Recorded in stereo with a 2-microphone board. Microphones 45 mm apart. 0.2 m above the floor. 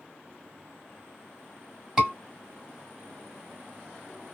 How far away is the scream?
About 1.5 m.